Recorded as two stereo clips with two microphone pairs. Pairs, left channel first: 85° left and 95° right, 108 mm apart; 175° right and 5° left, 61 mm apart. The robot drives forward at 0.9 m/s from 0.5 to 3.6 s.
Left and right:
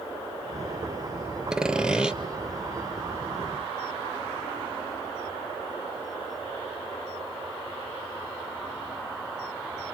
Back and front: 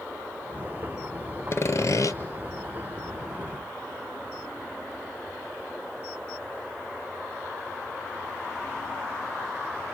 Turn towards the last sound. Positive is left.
turn(degrees=180)